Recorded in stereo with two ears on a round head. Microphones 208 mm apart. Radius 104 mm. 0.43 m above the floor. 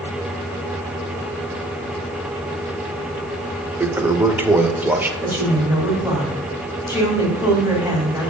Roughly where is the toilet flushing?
Centre.